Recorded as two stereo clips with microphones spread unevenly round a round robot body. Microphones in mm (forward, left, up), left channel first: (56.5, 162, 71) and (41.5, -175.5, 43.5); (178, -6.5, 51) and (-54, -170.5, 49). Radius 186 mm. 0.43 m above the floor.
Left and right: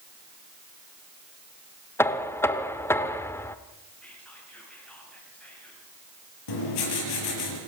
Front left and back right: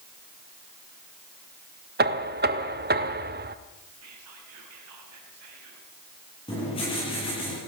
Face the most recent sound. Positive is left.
turn(degrees=110)